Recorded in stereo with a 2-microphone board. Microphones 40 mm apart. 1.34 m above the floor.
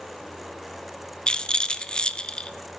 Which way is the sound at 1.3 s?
20° left (ahead or behind).